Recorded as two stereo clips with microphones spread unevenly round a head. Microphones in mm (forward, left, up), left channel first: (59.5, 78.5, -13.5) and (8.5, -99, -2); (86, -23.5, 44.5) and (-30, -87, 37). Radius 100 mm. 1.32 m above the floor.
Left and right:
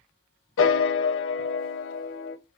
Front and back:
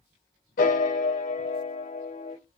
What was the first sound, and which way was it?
A piano, 60° left.